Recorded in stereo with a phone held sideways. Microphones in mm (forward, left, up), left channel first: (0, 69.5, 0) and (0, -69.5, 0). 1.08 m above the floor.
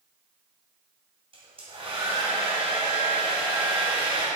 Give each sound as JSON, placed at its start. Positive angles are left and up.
{"t": 1.3, "sound": "a hair dryer", "side_deg": -40, "distance_m": 2.5}